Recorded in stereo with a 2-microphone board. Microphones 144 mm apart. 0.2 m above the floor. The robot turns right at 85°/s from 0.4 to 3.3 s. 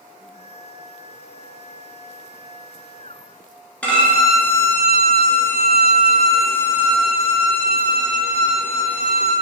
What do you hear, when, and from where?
3.8 s a violin: 10° left (ahead or behind), 0.9 m